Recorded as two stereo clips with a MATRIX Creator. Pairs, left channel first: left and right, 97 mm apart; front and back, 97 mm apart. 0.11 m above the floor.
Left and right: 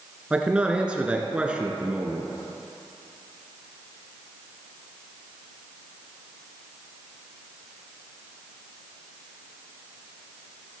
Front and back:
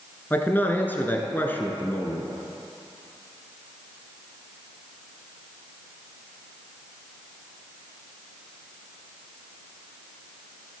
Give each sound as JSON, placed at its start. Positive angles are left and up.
{"t": 0.3, "sound": "a man speaking", "azimuth_deg": -30, "distance_m": 1.1}